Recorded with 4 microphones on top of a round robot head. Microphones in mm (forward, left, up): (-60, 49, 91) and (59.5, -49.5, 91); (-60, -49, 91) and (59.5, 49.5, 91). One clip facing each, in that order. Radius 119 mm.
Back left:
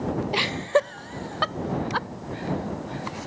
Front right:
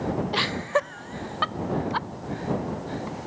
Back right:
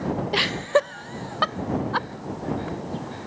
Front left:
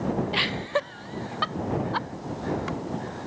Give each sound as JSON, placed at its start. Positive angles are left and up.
{"t": 0.3, "sound": "laughter", "azimuth_deg": -150}